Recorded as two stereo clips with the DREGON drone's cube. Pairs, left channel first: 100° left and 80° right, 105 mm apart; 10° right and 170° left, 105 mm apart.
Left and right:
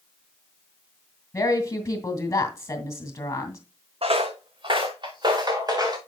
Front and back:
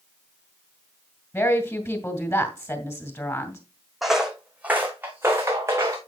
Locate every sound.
1.3 s a woman speaking: 45° left, 2 m
4.0 s footsteps: 100° right, 1.1 m; by 6.0 s 130° right, 2.0 m